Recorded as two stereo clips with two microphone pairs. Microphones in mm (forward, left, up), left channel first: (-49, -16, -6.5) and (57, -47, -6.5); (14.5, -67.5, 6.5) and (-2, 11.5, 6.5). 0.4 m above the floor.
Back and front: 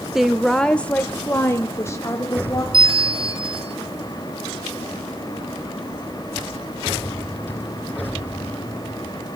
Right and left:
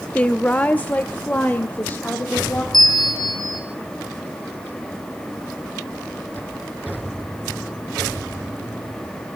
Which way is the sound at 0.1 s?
90° right.